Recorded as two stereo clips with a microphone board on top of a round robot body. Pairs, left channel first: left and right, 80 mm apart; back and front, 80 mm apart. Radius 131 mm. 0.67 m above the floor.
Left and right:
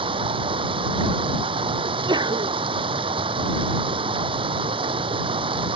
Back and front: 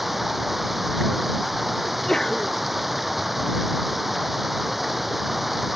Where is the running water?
90° right.